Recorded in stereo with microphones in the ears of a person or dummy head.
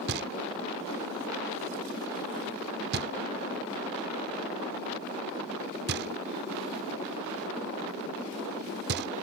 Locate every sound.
0.1 s knocking: 60° right (ahead or behind)